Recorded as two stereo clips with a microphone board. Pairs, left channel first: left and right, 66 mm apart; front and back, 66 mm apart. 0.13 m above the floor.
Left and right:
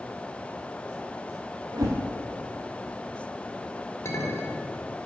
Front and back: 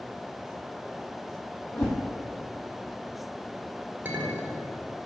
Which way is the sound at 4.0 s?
125° left.